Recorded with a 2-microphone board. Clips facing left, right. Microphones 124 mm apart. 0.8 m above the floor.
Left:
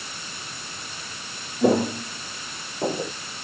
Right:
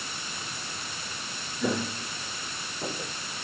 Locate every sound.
1.6 s footsteps: 50° left (ahead or behind); by 3.1 s 45° left (ahead or behind)